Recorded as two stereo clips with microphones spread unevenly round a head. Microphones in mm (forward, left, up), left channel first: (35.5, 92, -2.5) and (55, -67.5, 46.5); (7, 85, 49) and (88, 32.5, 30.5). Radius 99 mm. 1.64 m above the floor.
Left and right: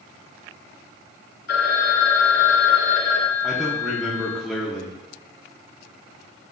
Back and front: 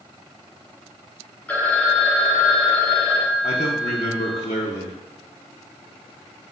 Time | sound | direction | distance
1.5 | a phone ringing | 100° left | 0.6 m
3.4 | a man speaking | 170° right | 0.6 m